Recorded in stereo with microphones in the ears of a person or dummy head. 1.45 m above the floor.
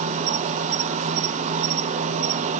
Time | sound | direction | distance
0.0 | an insect | 40° right (ahead or behind) | 0.9 m